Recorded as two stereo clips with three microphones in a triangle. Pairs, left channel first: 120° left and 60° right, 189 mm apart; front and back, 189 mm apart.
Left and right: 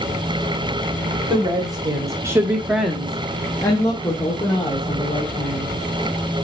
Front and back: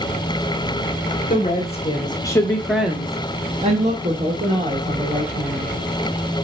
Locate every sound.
1.3 s a woman speaking: 5° right, 1.2 m; by 5.7 s straight behind, 1.9 m